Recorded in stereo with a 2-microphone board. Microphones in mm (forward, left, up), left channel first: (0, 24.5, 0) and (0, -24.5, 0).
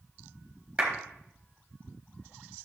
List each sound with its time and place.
0.8 s a clap: 20° right (ahead or behind), 3.5 m